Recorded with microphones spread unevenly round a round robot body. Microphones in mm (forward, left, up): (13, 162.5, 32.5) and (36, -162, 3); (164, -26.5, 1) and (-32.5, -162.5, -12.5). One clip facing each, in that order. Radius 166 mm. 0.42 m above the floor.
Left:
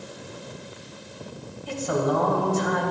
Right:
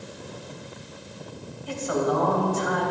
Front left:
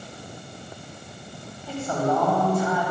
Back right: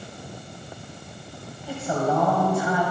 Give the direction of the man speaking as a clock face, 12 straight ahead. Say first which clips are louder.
Even, even; 7 o'clock.